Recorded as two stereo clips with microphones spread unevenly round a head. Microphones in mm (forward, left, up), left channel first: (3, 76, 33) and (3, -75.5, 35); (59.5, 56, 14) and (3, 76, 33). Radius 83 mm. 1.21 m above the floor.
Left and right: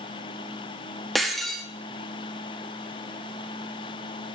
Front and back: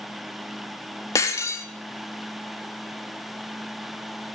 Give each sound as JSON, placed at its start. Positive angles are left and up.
{"t": 1.1, "sound": "breaking glass", "azimuth_deg": 0, "distance_m": 0.6}